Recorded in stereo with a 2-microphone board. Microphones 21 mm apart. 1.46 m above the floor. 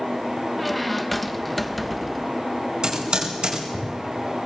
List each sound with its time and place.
0.6 s a squeak: centre (ahead or behind), 0.7 m
2.8 s typing on a keyboard: 40° right (ahead or behind), 5 m